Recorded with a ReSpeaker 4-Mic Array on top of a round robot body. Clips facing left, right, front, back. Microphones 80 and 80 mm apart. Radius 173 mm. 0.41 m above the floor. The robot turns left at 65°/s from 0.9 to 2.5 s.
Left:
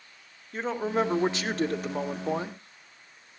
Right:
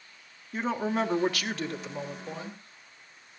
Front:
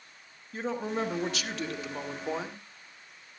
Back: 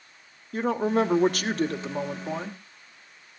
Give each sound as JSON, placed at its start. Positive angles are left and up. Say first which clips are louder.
{"t": 0.5, "sound": "a woman speaking", "louder": "left 1 dB, back 8 dB", "azimuth_deg": 180, "distance_m": 2.0}